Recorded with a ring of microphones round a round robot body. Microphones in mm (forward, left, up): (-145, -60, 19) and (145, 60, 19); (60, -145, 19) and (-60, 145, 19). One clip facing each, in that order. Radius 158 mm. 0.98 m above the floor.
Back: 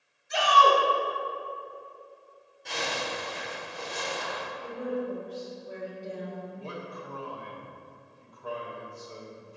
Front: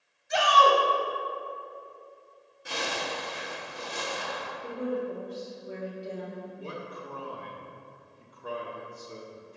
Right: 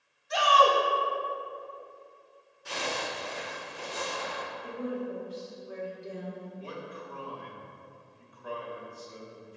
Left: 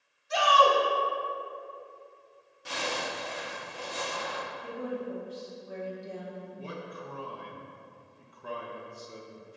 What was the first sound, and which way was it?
A shout, 40° left.